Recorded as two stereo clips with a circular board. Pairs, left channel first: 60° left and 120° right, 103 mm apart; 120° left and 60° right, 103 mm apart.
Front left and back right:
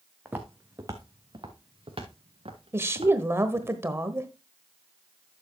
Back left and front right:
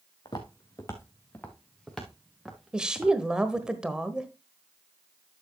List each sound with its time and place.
0.2 s footsteps: 165° left, 1.7 m; by 3.7 s 135° right, 3 m
2.7 s a woman speaking: 130° right, 1.1 m